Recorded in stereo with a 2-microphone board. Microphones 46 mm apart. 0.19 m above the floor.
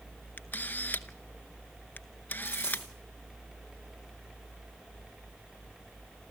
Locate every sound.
0.4 s a camera shutter: 40° left (ahead or behind), 0.8 m
2.5 s a dropped coin: 15° right (ahead or behind), 7 m